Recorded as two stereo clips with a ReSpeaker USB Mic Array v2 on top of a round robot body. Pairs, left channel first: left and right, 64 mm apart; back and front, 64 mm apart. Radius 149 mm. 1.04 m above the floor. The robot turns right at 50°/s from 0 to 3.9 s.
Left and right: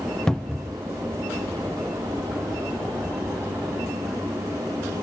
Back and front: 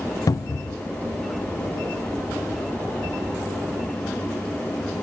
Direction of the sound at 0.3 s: 170° left.